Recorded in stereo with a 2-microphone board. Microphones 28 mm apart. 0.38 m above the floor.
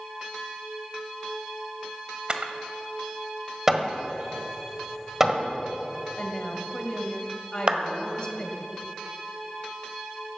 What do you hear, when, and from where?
2.3 s a camera shutter: 35° right (ahead or behind), 1.3 m
3.7 s hammering: 15° right (ahead or behind), 1.5 m
6.2 s a woman speaking: 35° left (ahead or behind), 2.5 m
7.7 s a clap: 40° right (ahead or behind), 1.5 m